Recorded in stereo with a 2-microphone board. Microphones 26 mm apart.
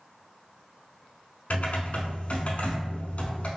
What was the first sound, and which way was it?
Typing on a keyboard, 65° left (ahead or behind).